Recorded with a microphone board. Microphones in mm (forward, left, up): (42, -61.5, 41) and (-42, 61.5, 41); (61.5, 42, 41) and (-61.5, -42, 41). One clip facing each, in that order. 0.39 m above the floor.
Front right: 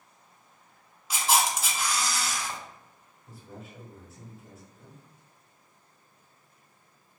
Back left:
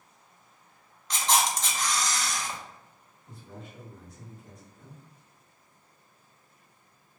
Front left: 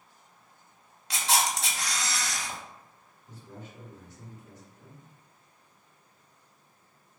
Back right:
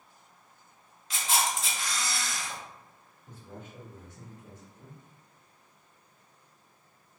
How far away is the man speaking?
About 1.2 m.